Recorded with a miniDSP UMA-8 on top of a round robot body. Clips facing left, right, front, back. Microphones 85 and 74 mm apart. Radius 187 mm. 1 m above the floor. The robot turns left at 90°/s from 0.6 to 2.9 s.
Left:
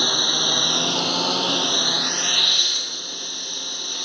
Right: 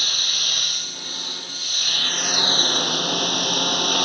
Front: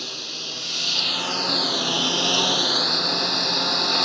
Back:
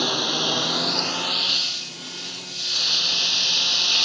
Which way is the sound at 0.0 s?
145° left.